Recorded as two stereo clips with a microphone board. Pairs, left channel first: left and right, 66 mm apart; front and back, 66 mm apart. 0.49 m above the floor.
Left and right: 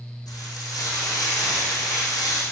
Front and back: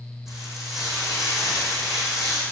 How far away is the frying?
About 5 m.